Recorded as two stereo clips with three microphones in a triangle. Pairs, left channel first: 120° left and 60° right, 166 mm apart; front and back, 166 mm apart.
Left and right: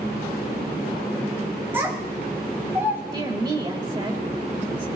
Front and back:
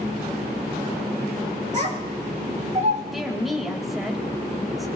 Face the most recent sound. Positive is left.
turn(degrees=-90)